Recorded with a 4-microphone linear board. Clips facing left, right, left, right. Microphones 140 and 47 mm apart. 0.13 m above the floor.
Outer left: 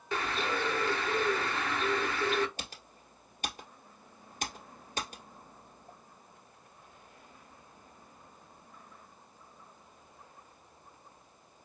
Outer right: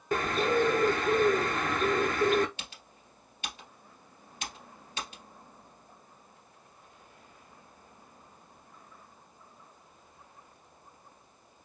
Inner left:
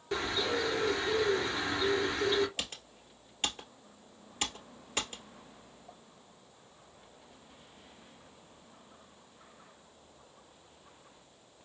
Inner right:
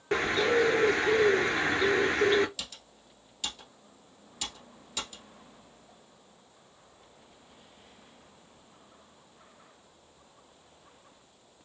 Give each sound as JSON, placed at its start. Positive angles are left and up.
{"t": 0.1, "sound": "a bird", "side_deg": -45, "distance_m": 0.6}
{"t": 2.6, "sound": "typing on a keyboard", "side_deg": 40, "distance_m": 1.6}